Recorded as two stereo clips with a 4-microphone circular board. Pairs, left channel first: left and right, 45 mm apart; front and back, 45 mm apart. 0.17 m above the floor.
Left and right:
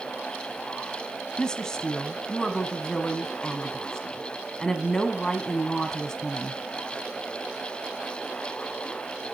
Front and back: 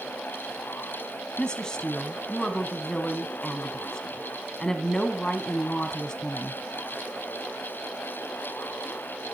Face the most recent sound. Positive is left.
turn(degrees=40)